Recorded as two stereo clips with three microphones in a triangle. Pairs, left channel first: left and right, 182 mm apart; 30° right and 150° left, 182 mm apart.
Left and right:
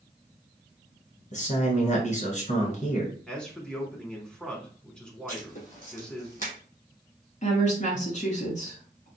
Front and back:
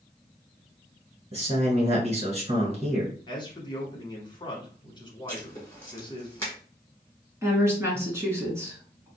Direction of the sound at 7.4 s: 80° left.